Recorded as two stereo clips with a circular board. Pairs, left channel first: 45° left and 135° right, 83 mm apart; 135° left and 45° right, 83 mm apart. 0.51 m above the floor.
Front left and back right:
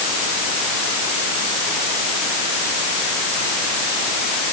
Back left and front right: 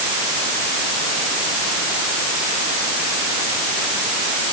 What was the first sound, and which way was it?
Only background noise.